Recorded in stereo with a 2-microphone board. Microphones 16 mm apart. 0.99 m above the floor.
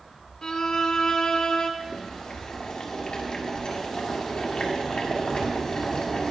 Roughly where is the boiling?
Left.